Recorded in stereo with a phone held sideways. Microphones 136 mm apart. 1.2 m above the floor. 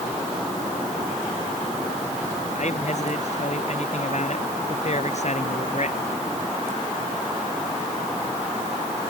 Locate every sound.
2.5 s a man speaking: 60° left (ahead or behind)